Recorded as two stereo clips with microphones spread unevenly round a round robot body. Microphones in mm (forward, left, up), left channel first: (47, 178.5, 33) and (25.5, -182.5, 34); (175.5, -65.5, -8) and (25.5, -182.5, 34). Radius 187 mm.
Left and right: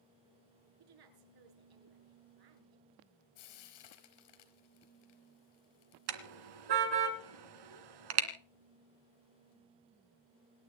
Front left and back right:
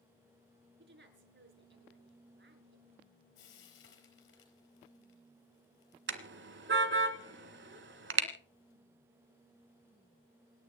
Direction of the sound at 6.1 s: 120° right.